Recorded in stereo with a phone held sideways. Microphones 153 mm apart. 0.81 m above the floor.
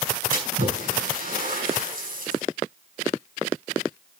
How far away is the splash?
About 5.5 m.